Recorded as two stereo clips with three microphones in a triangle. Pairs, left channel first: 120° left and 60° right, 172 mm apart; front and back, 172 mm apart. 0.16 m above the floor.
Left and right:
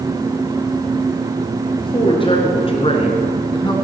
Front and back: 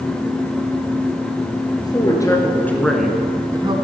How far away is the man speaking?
About 3 m.